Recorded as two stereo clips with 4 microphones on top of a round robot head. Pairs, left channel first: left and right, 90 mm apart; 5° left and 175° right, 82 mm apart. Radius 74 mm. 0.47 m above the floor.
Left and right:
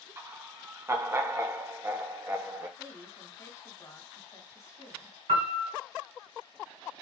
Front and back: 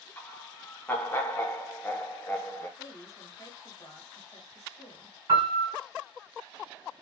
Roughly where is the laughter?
Ahead right.